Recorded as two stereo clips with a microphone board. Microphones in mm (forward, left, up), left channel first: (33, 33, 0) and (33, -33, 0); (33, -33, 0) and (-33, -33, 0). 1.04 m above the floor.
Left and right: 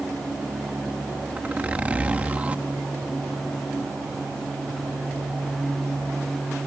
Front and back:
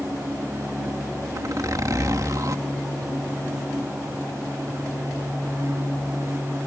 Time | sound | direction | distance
1.4 | a zipper | 155° right | ?